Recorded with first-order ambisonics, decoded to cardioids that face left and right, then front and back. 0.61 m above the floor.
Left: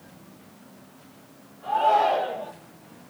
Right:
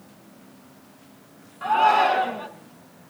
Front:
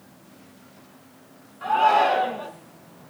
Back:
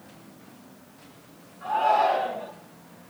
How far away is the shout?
About 5 m.